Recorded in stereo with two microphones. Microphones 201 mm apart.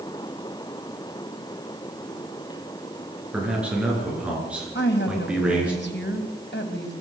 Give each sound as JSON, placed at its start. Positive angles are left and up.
{"t": 3.3, "sound": "a man speaking", "side_deg": -5, "distance_m": 9.0}
{"t": 4.8, "sound": "a woman speaking", "side_deg": 60, "distance_m": 3.0}